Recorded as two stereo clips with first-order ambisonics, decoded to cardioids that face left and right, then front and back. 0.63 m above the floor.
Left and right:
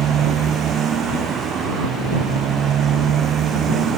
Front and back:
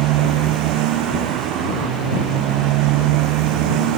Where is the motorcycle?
150° right.